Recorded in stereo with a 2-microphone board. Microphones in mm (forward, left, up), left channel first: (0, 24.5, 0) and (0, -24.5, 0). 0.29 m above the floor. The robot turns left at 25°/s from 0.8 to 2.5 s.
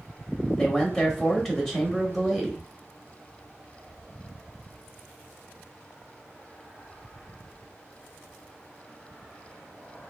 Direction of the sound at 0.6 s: 10° left (ahead or behind).